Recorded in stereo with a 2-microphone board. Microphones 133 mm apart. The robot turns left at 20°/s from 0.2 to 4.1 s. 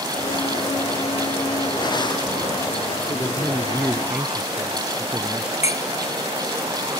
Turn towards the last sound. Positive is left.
turn(degrees=60)  # may be behind; listen again after turning